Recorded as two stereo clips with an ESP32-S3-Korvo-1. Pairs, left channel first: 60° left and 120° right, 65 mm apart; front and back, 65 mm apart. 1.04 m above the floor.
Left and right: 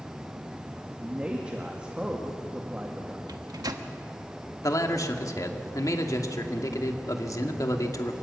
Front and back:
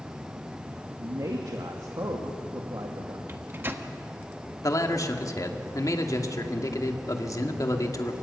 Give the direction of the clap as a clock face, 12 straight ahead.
No clap in this recording.